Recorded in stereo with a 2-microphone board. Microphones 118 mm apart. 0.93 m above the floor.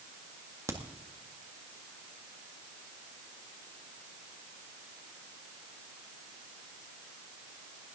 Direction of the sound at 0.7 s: 25° right (ahead or behind).